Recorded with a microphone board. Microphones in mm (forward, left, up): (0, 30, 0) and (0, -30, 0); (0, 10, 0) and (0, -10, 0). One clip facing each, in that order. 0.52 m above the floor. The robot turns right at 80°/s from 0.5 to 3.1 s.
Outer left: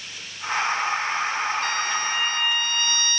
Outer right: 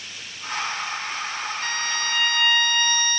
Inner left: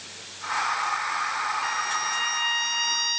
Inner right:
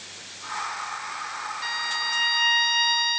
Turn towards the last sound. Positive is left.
turn(degrees=-20)